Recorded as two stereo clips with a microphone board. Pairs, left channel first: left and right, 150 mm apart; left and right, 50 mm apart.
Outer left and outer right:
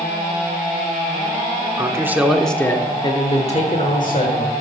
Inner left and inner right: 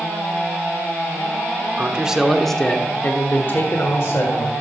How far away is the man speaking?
About 1.1 m.